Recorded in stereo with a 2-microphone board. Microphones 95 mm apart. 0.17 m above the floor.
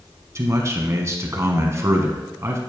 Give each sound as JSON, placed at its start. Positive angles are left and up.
{"t": 0.3, "sound": "a man speaking", "side_deg": -35, "distance_m": 1.2}